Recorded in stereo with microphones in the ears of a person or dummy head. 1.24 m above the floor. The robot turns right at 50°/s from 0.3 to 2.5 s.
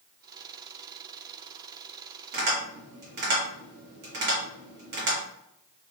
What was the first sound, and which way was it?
Tapping, 45° right (ahead or behind).